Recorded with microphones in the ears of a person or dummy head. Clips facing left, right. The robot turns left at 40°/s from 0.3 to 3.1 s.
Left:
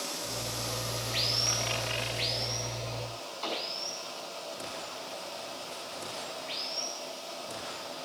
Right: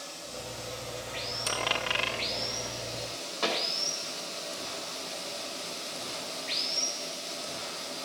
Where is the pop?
85° right, 2.5 m.